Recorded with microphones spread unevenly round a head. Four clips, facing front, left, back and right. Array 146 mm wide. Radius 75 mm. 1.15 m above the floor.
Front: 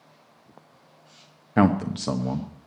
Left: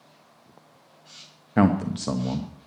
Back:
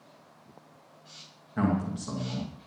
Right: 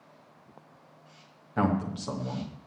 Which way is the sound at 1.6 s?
40° left.